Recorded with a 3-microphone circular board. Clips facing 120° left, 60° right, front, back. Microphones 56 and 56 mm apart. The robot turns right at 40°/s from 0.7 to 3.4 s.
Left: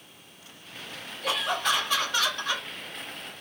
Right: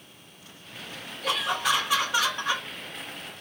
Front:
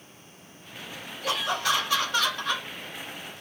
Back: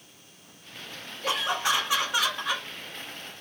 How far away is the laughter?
About 1.0 m.